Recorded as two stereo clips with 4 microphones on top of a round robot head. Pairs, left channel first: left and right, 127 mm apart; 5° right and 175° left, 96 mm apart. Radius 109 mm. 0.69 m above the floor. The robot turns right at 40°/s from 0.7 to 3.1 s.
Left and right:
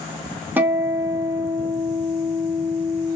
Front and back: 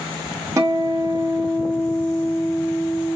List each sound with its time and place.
0.6 s a guitar: 155° right, 1.3 m; by 3.2 s 60° right, 1.3 m